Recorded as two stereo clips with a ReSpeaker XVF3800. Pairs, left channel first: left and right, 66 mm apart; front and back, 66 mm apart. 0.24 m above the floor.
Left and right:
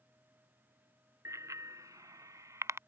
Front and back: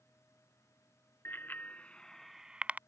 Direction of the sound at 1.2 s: 55° right.